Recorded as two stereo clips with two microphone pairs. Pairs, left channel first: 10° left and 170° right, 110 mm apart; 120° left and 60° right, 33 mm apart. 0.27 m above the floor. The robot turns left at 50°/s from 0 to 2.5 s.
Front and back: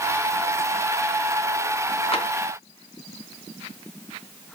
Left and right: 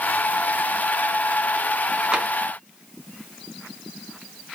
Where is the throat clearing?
I don't hear throat clearing.